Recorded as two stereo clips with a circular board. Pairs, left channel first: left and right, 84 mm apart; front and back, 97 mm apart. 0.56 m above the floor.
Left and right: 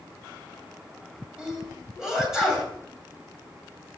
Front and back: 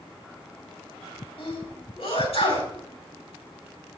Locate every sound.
1.4 s a sneeze: 10° right, 7.5 m